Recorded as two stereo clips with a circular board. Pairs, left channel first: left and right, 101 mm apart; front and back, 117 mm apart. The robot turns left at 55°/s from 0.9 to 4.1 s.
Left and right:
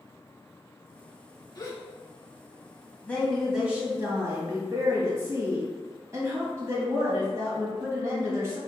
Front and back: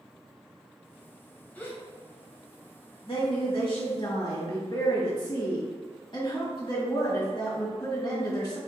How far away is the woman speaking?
About 1.5 m.